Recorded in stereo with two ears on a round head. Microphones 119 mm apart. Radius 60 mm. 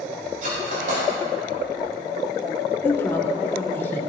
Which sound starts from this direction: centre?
A woman speaking, at 2.8 s.